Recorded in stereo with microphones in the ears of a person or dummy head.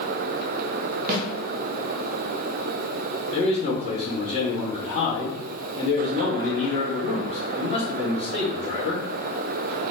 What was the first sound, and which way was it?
A snare drum, 35° right (ahead or behind).